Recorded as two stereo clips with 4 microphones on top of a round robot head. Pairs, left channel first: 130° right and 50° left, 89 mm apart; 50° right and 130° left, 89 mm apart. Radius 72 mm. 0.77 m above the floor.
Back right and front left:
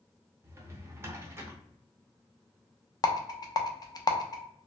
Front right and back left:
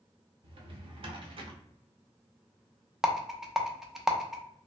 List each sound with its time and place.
0.4 s a drawer: 110° left, 0.7 m
3.0 s a rattle: 145° right, 0.6 m